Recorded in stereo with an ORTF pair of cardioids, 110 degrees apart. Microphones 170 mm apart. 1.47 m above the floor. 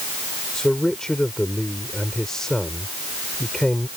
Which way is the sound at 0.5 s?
5° left.